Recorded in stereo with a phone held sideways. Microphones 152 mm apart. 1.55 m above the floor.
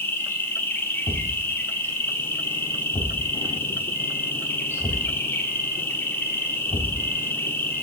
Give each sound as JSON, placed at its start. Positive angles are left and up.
{"t": 0.0, "sound": "an insect", "side_deg": 15, "distance_m": 0.8}
{"t": 1.1, "sound": "a thud", "side_deg": 35, "distance_m": 1.4}